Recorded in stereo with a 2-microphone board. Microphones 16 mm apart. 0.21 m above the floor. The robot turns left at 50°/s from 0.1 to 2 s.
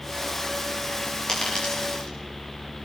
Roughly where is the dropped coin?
Left.